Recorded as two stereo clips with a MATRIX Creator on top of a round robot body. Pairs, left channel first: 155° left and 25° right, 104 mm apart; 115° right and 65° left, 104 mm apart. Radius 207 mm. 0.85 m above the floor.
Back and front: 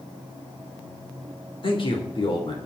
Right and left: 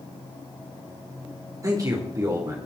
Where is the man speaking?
120° left, 4 m.